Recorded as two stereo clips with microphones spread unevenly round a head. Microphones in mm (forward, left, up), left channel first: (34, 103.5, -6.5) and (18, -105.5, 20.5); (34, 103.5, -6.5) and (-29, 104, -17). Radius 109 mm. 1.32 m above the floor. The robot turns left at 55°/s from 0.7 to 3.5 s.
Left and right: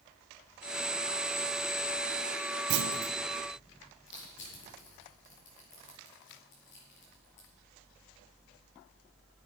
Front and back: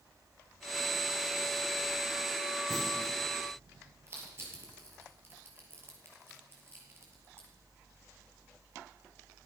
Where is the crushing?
130° left, 6 m.